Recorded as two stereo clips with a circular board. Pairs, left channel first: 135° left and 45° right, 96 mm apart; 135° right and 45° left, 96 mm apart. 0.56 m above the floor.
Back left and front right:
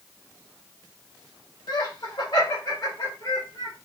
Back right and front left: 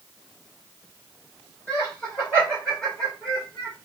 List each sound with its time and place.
1.7 s laughter: 155° left, 3 m; by 3.8 s 140° left, 1.5 m